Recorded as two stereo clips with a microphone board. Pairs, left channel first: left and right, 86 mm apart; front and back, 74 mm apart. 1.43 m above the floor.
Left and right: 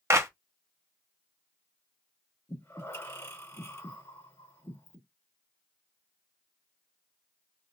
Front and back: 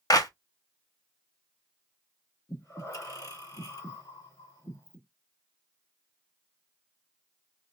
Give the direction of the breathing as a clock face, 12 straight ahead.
11 o'clock.